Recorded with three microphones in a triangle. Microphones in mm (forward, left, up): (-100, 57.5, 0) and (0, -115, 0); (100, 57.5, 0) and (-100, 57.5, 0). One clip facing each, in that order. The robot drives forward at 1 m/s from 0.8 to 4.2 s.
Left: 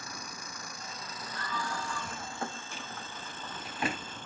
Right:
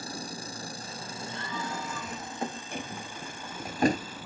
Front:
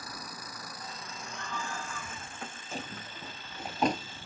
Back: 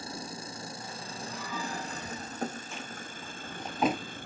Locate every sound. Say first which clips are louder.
0.0 s an engine running: right 7 dB, back 5 dB; 115° right; by 4.3 s 145° right
1.3 s a scream: right 1 dB, back 2 dB; 90° right; by 2.4 s 150° right
2.7 s a drawer: right 6 dB, front 1 dB; 45° right; by 4.3 s 110° right